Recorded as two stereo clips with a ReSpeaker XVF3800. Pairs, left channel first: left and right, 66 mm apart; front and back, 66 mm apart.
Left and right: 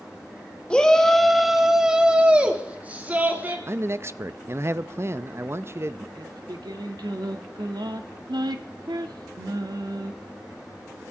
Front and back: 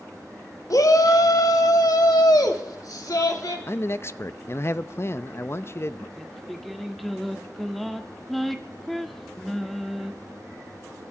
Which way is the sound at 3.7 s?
45° right.